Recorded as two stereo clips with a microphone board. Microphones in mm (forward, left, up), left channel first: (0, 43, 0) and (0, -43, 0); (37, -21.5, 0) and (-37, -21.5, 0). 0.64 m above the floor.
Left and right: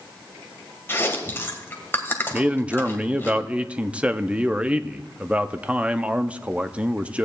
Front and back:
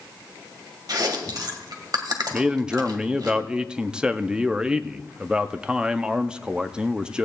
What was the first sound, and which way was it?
Chewing, 150° left.